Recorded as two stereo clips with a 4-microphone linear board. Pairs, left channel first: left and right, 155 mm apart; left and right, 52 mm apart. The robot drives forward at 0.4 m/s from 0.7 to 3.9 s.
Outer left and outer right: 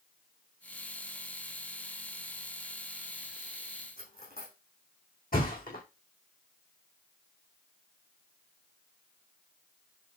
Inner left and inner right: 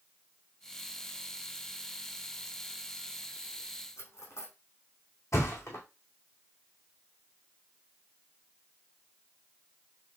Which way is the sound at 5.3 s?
75° left (ahead or behind).